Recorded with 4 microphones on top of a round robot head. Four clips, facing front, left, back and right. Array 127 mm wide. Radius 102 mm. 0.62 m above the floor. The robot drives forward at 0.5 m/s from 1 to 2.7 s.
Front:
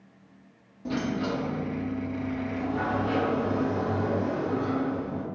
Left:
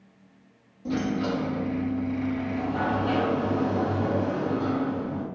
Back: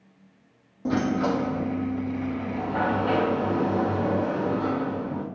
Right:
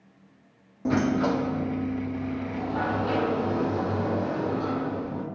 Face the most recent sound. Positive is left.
turn(degrees=-160)